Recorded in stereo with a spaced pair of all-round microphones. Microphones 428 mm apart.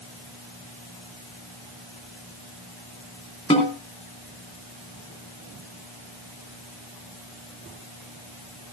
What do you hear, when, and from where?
3.5 s a snare drum: 15° left (ahead or behind), 3.5 m